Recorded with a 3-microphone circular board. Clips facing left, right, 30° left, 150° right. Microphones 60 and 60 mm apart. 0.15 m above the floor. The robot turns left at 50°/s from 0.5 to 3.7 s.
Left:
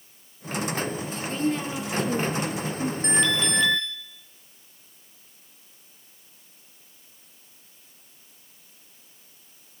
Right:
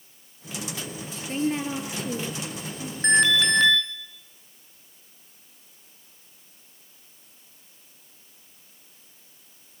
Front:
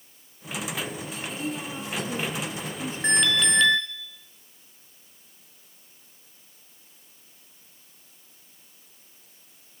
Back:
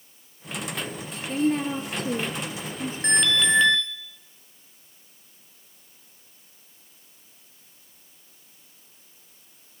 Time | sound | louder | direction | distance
1.3 | a woman speaking | right 1 dB, back 11 dB | 140° right | 3 m
3.0 | an alarm | right 6 dB, back 1 dB | 50° right | 5 m